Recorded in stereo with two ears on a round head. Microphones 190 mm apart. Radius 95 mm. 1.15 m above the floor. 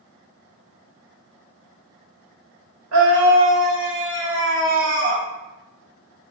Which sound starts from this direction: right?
A scream, at 2.9 s.